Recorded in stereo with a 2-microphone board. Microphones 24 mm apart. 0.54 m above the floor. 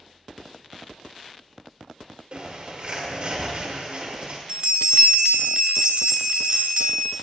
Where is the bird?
50° right (ahead or behind), 1.3 m.